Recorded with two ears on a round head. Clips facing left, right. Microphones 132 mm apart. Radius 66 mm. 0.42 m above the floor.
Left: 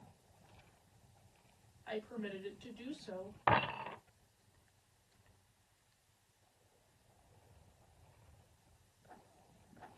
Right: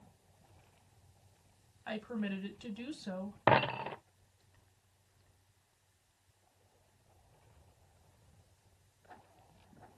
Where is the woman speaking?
70° right (ahead or behind), 3.5 m.